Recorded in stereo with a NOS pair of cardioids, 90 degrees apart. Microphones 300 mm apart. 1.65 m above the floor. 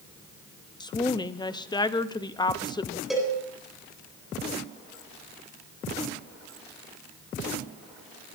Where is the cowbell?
Straight ahead, 8 m.